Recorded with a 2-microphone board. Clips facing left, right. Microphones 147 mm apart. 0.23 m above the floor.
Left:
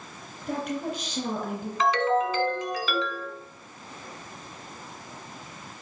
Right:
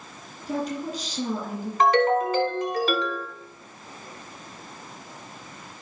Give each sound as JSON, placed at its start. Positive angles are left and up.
{"t": 0.4, "sound": "a woman speaking", "side_deg": 65, "distance_m": 2.5}
{"t": 1.8, "sound": "a ringtone", "side_deg": -55, "distance_m": 1.1}